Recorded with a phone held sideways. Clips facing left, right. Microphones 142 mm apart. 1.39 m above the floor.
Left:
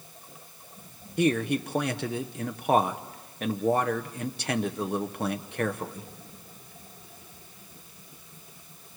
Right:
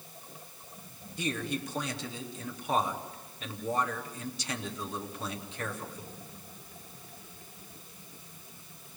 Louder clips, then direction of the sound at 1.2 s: Left 9 dB; 60° left (ahead or behind).